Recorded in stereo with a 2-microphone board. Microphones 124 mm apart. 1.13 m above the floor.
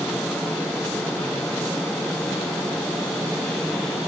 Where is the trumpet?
No trumpet in this recording.